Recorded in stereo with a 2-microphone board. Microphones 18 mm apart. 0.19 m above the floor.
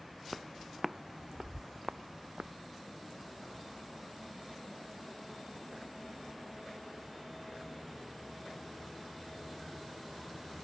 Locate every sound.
0.3 s footsteps: centre (ahead or behind); by 2.5 s 85° right